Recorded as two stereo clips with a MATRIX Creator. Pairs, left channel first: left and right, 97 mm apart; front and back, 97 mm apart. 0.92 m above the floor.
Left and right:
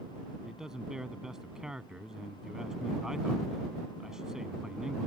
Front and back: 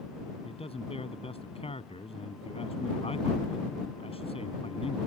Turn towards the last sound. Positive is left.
turn(degrees=-5)